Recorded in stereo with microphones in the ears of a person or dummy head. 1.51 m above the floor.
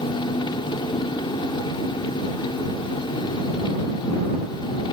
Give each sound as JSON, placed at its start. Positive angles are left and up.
{"t": 0.0, "sound": "an engine running", "side_deg": 25}